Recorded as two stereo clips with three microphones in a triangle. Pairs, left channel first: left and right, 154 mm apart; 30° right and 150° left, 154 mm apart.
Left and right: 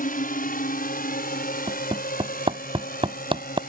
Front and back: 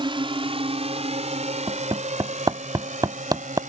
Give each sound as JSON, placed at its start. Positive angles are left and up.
{"t": 0.0, "sound": "a drone", "azimuth_deg": 95}
{"t": 1.7, "sound": "hammering", "azimuth_deg": -145}